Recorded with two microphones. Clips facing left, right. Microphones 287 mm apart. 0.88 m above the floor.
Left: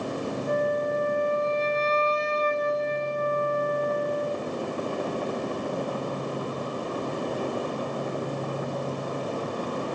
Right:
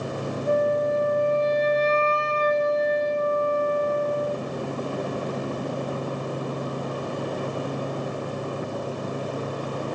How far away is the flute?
About 4 m.